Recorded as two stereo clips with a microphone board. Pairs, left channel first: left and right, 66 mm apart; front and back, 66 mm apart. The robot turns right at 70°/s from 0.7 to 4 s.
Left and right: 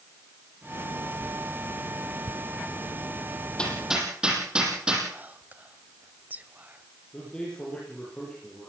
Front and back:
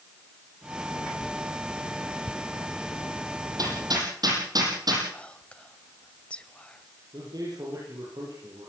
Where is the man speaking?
165° left, 8.5 m.